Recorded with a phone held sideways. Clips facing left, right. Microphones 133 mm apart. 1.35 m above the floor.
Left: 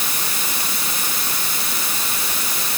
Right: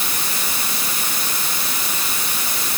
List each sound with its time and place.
Only background noise.